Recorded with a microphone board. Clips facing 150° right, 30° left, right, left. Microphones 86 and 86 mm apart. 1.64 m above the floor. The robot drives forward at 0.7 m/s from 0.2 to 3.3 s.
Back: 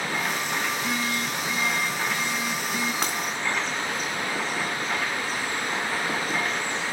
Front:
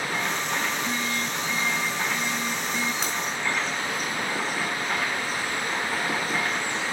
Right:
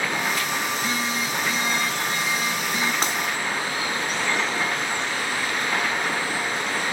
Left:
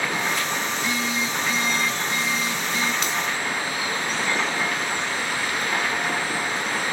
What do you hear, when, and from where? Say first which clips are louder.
0.7 s a phone buzzing: back 1 dB, even; 145° right, 5 m; by 2.9 s 155° right, 6.5 m
3.0 s breaking glass: back 2 dB, right 2 dB; 140° right, 3.5 m